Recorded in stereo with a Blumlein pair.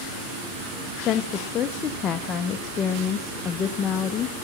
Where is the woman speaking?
25° left, 0.6 m.